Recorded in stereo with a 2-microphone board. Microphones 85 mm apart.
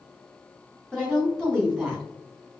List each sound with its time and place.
0.9 s a woman speaking: 5° left (ahead or behind), 1.9 m